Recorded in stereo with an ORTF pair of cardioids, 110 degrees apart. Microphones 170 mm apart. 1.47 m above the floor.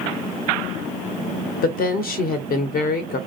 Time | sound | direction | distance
1.6 | a woman speaking | 65° left | 0.8 m